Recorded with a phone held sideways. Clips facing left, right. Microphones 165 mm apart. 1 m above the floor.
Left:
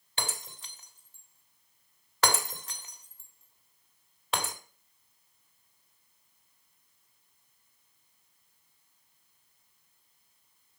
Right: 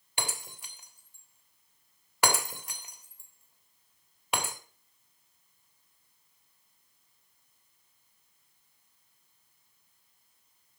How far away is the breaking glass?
About 1.3 m.